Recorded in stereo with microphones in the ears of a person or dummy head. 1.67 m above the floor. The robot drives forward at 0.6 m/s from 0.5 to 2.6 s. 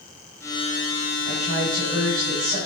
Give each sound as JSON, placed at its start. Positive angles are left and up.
{"t": 1.2, "sound": "a woman speaking", "side_deg": -80, "distance_m": 4.5}